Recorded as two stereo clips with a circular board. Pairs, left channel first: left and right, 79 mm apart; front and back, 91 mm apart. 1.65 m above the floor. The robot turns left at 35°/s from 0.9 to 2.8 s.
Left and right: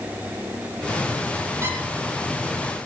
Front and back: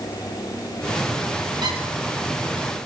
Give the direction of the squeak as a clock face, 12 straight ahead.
5 o'clock.